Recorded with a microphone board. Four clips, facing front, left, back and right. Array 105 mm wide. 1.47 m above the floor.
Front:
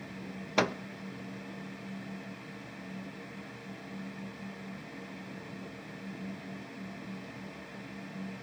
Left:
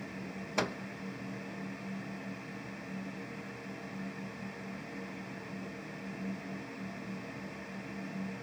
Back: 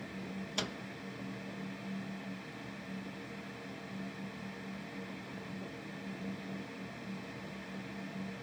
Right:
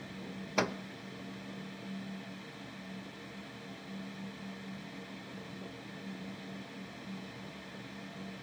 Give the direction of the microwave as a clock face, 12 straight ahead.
12 o'clock.